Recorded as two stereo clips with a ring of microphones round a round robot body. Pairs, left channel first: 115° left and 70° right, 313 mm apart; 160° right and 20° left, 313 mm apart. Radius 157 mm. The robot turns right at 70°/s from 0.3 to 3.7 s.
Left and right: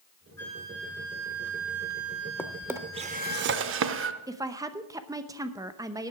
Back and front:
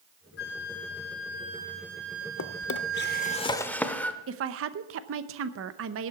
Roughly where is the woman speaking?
Ahead.